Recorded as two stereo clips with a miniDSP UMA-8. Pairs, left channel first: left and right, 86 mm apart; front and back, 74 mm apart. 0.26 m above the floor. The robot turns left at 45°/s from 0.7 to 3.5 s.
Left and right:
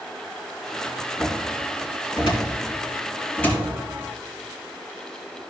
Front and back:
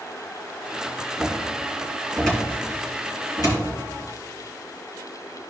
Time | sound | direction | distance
1.2 | a cupboard door | 130° left | 3.5 m